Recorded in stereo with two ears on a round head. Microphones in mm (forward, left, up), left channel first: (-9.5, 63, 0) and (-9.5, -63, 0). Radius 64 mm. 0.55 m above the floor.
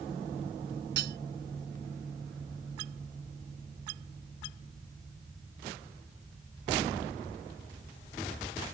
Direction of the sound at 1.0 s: 75° right (ahead or behind).